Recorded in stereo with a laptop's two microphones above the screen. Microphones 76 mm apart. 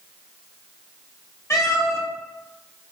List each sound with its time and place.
1.5 s a cat meowing: 40° left (ahead or behind), 0.8 m